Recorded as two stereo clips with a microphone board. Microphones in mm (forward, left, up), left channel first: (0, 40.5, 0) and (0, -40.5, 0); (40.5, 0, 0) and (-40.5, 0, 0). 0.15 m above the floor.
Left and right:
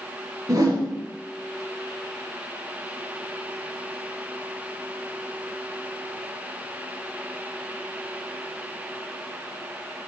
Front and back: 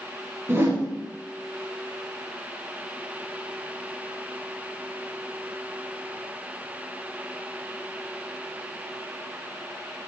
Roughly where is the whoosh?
Behind right.